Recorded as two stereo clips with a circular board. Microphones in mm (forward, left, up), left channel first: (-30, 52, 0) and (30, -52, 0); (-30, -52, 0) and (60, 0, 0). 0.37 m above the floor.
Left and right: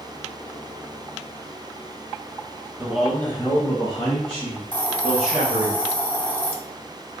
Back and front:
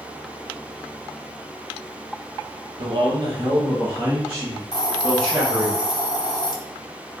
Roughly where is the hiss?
Behind.